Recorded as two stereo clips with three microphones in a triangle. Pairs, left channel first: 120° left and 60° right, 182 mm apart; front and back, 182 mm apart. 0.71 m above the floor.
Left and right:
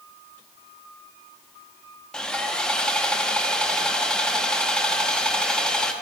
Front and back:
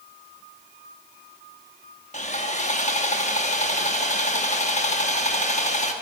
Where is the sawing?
35° left, 0.6 m.